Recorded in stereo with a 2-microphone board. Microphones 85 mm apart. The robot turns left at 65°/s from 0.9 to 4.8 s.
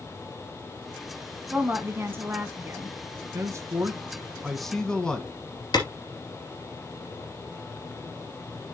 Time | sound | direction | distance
1.5 | a woman speaking | 30° right | 1.5 m
3.3 | a man speaking | 100° right | 1.4 m
5.7 | a clap | 55° left (ahead or behind) | 2.5 m